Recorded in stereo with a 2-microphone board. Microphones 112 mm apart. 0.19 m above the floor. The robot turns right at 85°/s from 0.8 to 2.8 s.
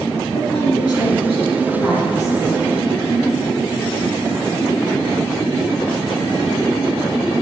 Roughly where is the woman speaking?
Left.